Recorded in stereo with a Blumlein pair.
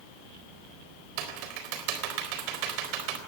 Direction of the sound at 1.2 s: 45° right.